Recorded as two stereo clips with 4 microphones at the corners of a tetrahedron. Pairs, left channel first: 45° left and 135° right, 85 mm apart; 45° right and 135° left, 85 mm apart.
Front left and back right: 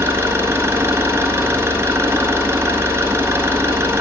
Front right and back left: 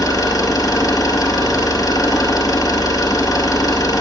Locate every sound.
0.0 s an engine running: 80° right, 1.5 m